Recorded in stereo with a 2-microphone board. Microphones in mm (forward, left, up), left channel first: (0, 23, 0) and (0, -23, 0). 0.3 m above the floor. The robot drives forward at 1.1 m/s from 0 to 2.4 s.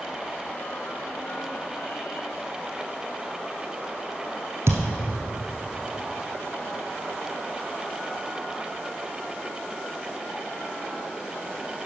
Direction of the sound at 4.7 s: 70° right (ahead or behind).